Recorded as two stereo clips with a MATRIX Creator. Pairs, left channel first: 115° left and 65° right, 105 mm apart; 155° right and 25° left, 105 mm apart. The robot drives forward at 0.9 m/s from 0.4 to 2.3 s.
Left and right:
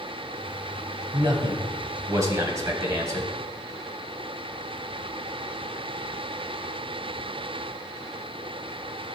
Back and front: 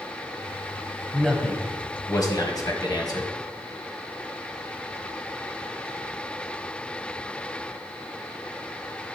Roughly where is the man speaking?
Right.